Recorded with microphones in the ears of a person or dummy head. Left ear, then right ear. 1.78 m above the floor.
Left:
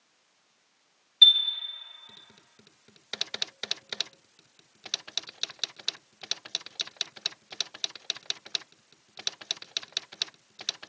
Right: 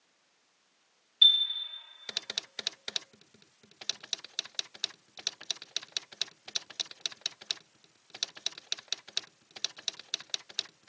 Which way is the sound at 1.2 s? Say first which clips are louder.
Left 4 dB; 25° right (ahead or behind).